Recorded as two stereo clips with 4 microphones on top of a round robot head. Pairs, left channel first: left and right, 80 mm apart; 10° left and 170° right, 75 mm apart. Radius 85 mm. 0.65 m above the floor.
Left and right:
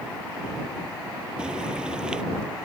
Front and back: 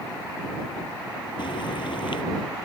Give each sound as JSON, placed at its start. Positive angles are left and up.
{"t": 1.4, "sound": "frying", "azimuth_deg": -10}